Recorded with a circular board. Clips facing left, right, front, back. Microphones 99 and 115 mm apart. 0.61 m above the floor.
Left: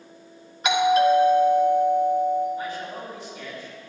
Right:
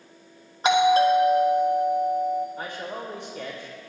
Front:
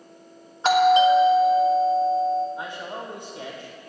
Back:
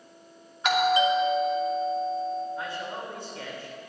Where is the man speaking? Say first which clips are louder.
Left 2 dB, front 1 dB; 70° right, 1.7 m.